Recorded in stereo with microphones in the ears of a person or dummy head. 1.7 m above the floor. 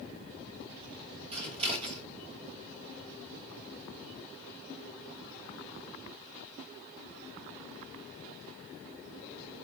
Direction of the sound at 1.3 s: 30° right (ahead or behind).